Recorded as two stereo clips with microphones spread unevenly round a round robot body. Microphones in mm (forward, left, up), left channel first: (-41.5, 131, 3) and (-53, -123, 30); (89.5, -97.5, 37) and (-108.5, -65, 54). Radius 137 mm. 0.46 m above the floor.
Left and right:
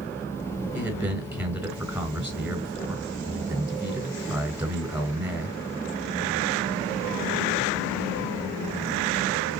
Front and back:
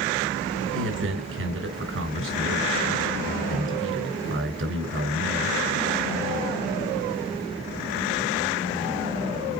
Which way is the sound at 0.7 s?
Straight behind.